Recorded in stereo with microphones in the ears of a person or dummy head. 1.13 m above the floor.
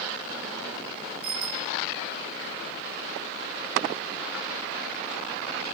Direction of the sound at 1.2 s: 55° right (ahead or behind).